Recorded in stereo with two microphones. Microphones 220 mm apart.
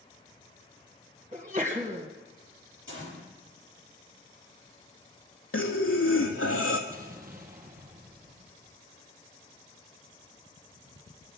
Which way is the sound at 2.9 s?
60° right (ahead or behind).